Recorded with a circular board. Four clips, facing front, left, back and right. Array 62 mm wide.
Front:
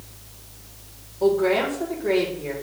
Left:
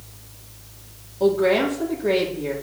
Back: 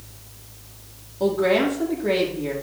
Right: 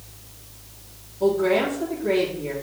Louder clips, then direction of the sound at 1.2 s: Left 2 dB, even; 140° left.